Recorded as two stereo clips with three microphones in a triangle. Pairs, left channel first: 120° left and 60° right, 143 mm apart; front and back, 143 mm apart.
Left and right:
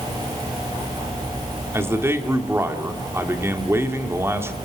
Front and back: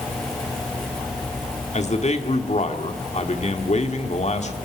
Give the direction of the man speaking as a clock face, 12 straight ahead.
12 o'clock.